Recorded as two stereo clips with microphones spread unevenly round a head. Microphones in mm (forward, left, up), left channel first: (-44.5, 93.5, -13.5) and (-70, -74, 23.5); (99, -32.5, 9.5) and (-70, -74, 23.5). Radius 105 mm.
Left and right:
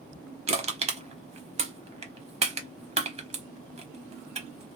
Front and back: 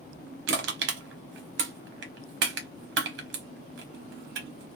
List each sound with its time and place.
0.5 s crushing: 150° right, 1.1 m